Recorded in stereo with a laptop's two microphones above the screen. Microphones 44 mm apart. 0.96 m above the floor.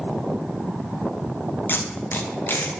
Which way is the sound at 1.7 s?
50° left (ahead or behind).